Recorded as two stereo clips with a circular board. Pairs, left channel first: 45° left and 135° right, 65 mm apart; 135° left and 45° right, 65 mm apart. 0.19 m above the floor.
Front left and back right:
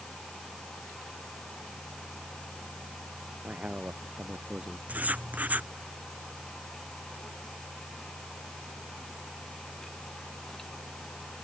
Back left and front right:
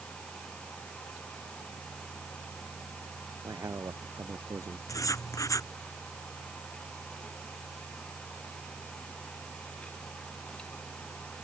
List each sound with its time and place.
3.4 s a man speaking: 70° right
4.9 s writing: 160° left